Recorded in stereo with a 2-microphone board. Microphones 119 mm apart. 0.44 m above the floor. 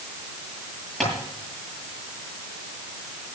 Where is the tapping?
Centre (ahead or behind), 9 m.